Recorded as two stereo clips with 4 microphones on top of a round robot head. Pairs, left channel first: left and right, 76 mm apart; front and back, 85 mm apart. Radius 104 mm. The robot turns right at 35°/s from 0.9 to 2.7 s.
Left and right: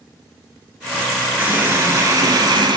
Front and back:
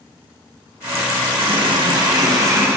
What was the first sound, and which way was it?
A running tap, 160° right.